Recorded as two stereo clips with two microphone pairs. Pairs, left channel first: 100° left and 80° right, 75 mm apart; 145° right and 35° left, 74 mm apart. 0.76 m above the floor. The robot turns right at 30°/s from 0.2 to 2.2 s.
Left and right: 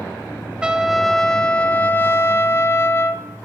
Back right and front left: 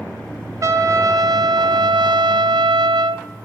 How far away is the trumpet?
About 0.6 m.